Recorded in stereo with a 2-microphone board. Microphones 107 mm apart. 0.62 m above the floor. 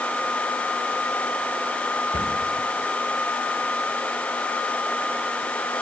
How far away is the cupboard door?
About 3 m.